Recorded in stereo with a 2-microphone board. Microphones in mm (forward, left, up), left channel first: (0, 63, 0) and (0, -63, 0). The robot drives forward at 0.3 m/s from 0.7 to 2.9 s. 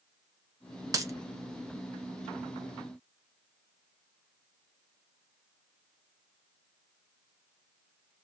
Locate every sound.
0.9 s a dropped coin: 25° right (ahead or behind), 0.8 m